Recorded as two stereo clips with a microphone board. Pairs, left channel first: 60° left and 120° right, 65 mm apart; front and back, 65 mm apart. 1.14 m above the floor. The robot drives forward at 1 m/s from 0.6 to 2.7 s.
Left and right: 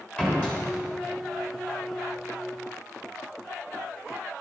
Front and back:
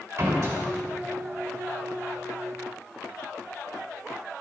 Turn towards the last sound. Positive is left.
turn(degrees=150)